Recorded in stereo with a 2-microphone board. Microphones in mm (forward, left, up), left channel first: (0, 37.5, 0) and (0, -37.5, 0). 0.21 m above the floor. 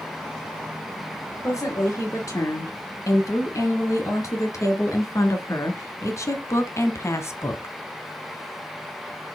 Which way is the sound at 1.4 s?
45° left (ahead or behind).